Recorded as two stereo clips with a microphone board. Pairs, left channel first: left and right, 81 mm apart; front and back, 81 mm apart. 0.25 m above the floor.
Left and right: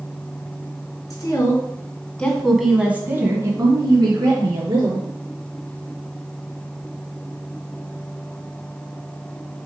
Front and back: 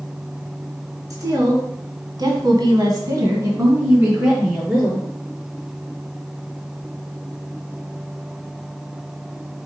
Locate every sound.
1.1 s a woman speaking: 135° left, 3 m; by 5.1 s 105° right, 4 m